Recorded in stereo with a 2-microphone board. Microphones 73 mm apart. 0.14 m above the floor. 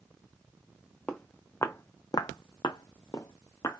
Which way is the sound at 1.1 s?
15° left (ahead or behind).